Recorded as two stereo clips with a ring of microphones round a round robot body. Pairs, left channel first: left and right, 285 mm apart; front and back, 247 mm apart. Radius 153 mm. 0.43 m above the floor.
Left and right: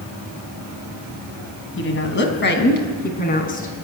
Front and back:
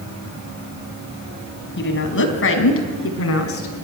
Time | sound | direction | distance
1.8 | a woman speaking | 40° left | 3 m